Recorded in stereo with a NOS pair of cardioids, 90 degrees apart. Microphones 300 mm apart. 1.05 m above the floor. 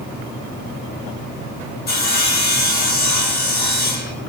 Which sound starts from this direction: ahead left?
Sawing, at 1.9 s.